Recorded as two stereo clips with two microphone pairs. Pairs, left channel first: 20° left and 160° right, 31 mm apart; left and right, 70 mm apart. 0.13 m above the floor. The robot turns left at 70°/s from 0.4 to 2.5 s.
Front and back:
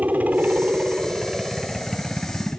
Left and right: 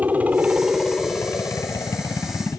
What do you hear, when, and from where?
0.0 s a helicopter: 155° right; by 2.6 s 60° left